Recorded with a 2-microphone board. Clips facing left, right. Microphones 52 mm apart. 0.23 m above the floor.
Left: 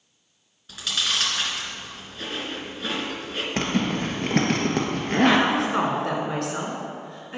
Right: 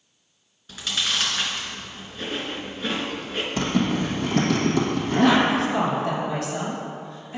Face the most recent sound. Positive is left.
turn(degrees=60)  # may be behind; listen again after turning